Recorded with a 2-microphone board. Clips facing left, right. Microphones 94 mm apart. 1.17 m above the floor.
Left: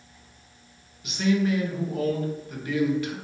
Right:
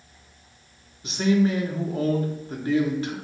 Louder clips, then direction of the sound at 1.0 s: Right 2 dB; 35° right (ahead or behind).